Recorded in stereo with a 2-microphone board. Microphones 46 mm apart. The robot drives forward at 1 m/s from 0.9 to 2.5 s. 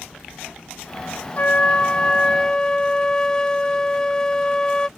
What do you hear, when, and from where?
1.4 s a flute: 35° left (ahead or behind); by 4.9 s 15° left (ahead or behind)